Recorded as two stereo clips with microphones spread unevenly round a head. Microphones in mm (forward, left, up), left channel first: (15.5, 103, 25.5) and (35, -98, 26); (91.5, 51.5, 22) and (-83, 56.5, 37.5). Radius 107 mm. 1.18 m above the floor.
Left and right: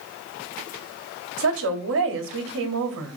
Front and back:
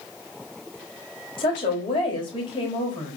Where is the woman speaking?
65° right, 3.5 m.